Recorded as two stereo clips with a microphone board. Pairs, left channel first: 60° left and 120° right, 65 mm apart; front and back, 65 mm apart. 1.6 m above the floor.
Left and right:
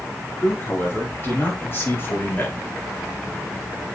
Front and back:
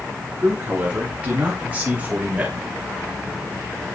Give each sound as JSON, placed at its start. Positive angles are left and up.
{"t": 0.4, "sound": "a man speaking", "azimuth_deg": 115, "distance_m": 5.0}